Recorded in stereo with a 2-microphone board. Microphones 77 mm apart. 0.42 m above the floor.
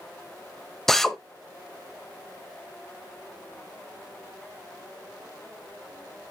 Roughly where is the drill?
Centre.